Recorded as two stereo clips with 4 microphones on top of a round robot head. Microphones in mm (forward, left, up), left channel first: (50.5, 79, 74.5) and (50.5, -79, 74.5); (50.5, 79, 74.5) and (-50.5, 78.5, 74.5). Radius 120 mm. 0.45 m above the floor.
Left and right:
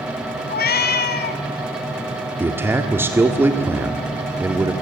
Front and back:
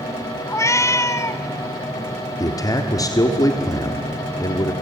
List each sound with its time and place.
0.5 s a cat meowing: 65° left, 1.0 m
2.4 s a man speaking: 20° right, 1.5 m